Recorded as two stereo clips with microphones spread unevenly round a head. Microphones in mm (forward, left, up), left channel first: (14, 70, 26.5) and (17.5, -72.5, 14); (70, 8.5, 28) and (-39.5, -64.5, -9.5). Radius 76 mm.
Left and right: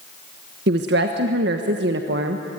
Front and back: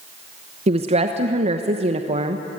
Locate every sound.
0.7 s a woman speaking: 105° right, 1.2 m